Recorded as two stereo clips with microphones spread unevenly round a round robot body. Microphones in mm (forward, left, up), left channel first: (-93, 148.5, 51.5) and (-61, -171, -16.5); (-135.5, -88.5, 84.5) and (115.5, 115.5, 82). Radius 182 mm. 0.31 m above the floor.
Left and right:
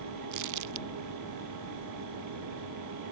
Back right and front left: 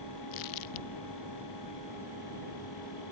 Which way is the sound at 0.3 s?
115° right.